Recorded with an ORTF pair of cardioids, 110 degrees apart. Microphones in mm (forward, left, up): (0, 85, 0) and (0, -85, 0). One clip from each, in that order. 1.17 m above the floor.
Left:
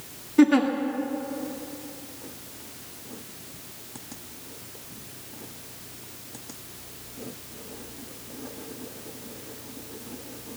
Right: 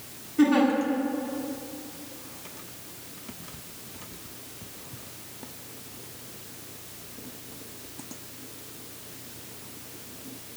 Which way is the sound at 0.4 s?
55° left.